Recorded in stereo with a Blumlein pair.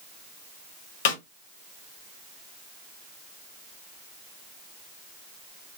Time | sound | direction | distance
1.1 | a snare drum | 50° left | 1.2 m